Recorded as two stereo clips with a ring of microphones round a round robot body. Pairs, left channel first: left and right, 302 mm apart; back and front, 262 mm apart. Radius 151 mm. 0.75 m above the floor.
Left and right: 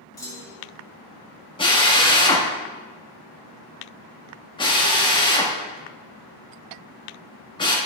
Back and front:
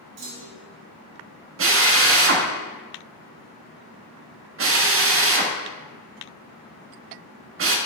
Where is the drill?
20° left, 1.5 m.